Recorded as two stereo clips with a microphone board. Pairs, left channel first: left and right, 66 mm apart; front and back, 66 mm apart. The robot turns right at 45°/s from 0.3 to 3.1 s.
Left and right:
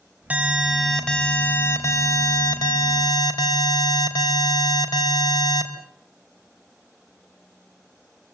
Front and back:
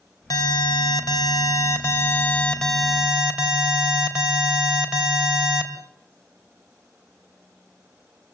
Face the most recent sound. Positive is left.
turn(degrees=105)